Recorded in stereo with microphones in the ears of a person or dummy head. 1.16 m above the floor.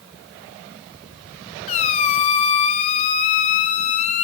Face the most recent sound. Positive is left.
turn(degrees=40)  # may be behind; listen again after turning